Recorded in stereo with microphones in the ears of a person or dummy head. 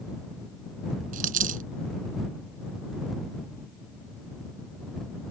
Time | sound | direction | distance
1.1 | a dropped coin | 45° right (ahead or behind) | ?